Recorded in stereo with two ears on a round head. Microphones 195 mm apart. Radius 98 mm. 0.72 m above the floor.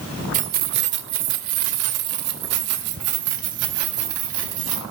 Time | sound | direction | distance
0.3 | keys jangling | 35° right (ahead or behind) | 1.5 m